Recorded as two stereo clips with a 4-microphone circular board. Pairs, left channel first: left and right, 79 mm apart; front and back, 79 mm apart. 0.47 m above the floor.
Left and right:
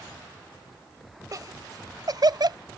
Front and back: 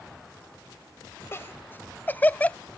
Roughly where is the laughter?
Ahead right.